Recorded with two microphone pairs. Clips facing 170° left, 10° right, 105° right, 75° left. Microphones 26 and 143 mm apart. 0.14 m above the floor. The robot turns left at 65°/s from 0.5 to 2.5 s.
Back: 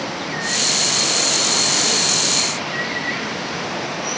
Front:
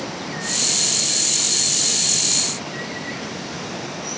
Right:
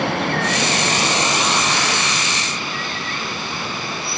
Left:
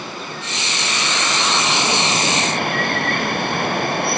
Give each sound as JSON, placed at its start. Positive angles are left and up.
{"t": 0.0, "sound": "running water", "azimuth_deg": -120}